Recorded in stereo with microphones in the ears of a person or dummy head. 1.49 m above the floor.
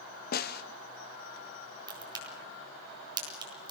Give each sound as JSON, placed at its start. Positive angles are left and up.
{"t": 0.3, "sound": "a snare drum", "side_deg": 45, "distance_m": 1.2}
{"t": 1.9, "sound": "a crack", "side_deg": -30, "distance_m": 8.0}